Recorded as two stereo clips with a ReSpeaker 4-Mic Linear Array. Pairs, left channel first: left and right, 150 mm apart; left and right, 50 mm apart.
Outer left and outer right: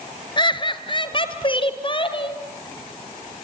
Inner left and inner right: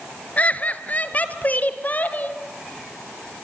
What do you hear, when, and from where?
0.4 s laughter: 30° left (ahead or behind), 1.6 m; by 2.4 s 35° left (ahead or behind), 3 m